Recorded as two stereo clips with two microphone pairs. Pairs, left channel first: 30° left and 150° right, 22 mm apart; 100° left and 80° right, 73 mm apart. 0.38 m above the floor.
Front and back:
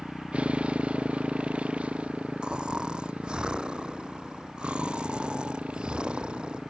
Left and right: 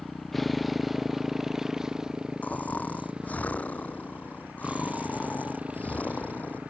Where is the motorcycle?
170° right; by 6.7 s 150° right.